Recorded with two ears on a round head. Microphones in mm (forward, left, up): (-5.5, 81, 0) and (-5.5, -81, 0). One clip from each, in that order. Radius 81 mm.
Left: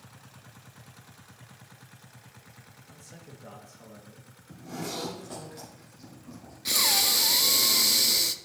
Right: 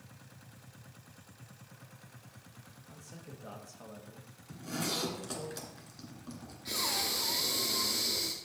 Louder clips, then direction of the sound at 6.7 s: Left 9 dB; 65° left (ahead or behind).